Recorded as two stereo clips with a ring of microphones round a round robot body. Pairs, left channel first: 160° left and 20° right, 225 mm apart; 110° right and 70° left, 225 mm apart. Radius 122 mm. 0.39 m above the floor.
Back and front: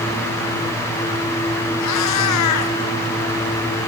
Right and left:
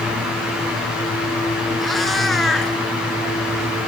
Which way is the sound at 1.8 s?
160° left.